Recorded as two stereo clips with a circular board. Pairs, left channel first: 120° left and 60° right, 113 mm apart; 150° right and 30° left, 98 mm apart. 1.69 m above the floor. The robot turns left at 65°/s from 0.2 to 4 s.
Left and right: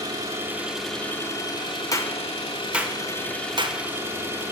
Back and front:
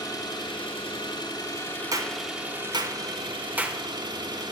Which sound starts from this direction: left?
A clap, at 1.9 s.